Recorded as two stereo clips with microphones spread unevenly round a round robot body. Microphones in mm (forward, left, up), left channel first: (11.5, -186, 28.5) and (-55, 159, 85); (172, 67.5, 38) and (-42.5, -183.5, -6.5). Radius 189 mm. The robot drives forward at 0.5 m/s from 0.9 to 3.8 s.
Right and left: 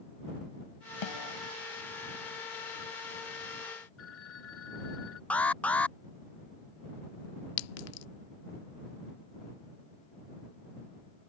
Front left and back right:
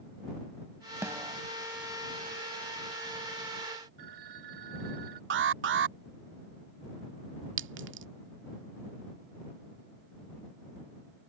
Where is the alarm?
155° right.